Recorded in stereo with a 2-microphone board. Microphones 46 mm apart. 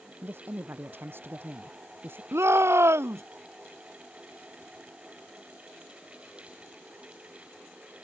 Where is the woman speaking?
50° right (ahead or behind).